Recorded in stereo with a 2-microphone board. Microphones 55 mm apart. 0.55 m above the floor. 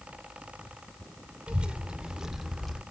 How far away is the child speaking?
About 1.5 m.